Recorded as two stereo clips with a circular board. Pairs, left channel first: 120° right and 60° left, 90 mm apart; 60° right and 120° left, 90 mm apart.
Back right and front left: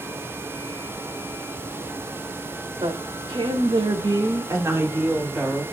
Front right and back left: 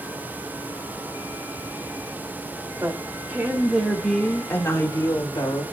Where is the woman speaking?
65° left, 3 m; by 5.6 s 25° right, 3 m.